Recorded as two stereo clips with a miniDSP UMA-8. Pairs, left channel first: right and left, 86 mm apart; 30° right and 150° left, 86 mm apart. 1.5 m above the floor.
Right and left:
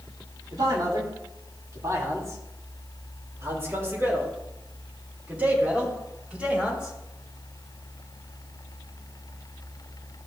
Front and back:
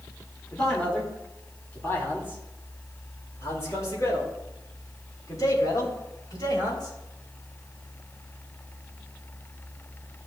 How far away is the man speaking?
About 3.5 m.